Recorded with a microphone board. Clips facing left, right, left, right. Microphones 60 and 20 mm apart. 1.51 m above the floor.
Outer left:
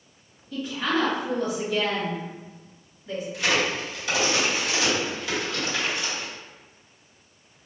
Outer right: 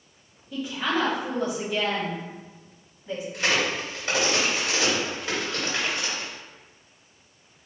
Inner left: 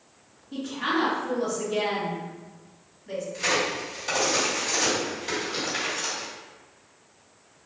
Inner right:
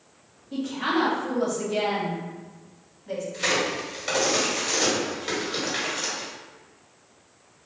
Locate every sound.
0.5 s a woman speaking: 20° right (ahead or behind), 1.3 m
3.3 s a crack: 40° right (ahead or behind), 1.4 m